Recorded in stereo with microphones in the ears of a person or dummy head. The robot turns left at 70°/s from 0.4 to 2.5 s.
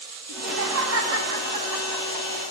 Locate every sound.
0.3 s laughter: 65° right, 3 m; by 2.5 s 155° left, 3 m